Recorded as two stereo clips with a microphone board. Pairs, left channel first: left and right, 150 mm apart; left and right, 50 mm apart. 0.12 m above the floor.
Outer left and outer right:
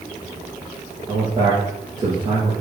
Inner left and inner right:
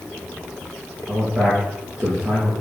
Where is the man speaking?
25° right (ahead or behind), 3 m.